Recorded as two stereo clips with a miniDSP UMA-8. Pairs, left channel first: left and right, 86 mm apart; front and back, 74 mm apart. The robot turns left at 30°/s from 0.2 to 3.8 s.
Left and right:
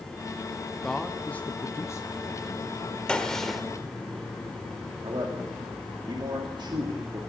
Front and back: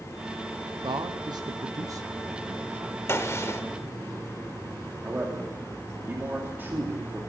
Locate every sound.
0.8 s a man speaking: 175° left, 0.8 m; by 3.0 s 110° left, 0.8 m
3.1 s a gunshot: 15° left, 1.3 m; by 3.6 s straight ahead, 1.3 m
5.0 s a man speaking: 115° right, 2.5 m